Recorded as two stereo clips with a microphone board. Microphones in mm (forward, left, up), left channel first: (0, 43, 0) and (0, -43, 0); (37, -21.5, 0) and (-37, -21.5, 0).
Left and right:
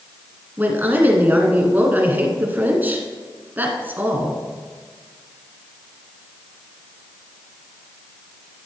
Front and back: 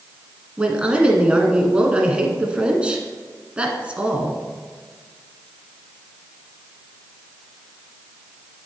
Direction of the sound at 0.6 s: 125° right.